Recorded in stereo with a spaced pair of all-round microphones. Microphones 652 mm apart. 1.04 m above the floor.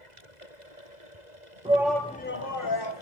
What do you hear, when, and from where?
1.6 s a shout: 10° right (ahead or behind), 0.8 m; by 3.0 s 40° left (ahead or behind), 0.9 m